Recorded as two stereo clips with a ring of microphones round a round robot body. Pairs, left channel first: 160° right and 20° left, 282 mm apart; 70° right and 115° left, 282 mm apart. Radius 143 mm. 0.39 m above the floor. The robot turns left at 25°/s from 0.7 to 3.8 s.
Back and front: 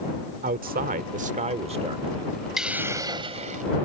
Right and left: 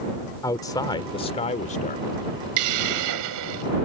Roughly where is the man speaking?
Ahead.